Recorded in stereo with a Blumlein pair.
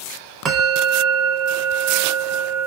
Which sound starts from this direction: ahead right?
A bell, at 0.5 s.